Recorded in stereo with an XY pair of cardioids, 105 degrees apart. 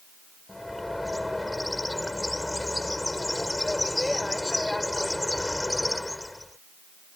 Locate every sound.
0.5 s a bird: 10° left